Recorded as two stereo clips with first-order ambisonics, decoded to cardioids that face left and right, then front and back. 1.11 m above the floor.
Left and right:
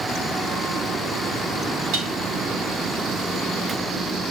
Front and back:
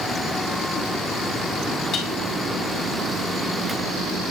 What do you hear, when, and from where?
1.9 s dishes clattering: 65° right, 6 m